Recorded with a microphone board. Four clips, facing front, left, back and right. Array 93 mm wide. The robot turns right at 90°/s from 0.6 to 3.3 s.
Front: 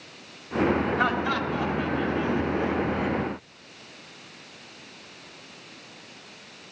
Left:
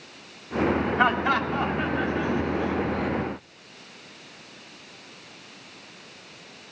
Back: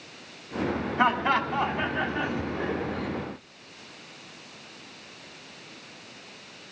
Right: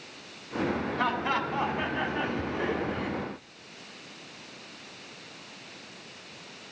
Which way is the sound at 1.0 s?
130° left.